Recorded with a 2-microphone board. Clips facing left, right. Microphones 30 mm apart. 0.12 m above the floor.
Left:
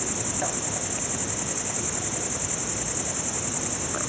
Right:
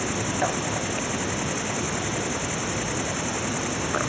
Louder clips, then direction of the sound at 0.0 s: Right 5 dB; 25° right (ahead or behind).